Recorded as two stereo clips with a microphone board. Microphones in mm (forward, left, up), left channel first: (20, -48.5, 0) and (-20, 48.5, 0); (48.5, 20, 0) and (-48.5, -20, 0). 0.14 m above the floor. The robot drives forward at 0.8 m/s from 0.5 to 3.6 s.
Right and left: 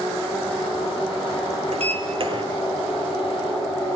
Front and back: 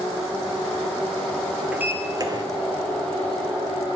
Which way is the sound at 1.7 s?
125° left.